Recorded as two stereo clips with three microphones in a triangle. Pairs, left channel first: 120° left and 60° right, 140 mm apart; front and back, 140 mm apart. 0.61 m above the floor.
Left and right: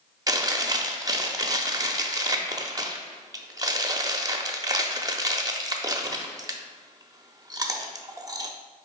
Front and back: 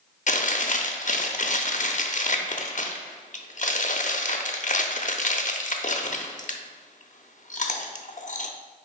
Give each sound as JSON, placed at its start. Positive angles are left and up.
{"t": 0.3, "sound": "chewing", "azimuth_deg": 0, "distance_m": 0.6}